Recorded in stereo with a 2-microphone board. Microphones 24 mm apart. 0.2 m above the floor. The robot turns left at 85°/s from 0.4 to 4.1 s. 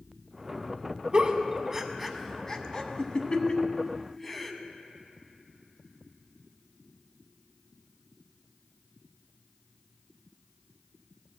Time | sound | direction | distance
1.1 | a giggle | 40° right (ahead or behind) | 0.6 m